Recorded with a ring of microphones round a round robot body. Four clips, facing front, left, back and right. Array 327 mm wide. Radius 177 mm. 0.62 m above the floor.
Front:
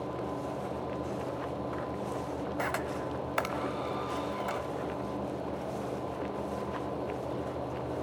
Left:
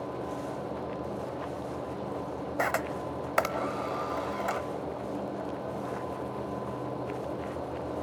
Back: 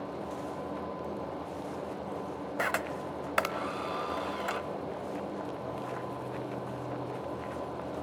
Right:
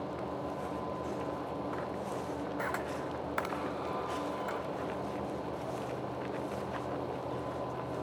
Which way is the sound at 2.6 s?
105° left.